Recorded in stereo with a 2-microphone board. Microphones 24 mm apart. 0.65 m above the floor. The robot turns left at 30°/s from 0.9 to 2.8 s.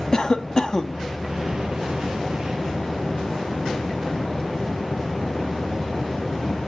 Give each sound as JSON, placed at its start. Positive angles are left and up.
{"t": 0.1, "sound": "a cough", "side_deg": 30, "distance_m": 0.8}